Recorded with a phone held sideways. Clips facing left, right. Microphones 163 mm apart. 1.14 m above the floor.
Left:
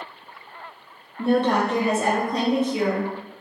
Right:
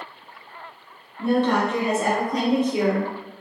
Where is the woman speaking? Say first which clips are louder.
Even; 30° left (ahead or behind), 0.7 m; by 3.1 s 25° right (ahead or behind), 1.1 m.